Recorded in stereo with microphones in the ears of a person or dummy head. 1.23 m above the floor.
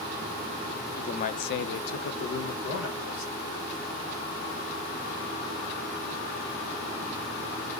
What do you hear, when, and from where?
1.0 s a man speaking: 30° left (ahead or behind), 0.5 m; by 3.4 s 60° left (ahead or behind), 1.2 m